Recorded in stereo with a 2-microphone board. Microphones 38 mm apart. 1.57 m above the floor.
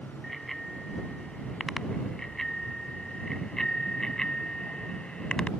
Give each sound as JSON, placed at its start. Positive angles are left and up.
{"t": 0.2, "sound": "a bicycle bell", "side_deg": 5}